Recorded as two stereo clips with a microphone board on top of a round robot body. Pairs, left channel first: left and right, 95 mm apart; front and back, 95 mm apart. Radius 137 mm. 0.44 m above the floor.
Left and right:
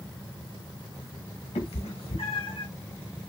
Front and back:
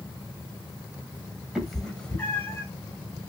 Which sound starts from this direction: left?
A cat meowing, at 1.6 s.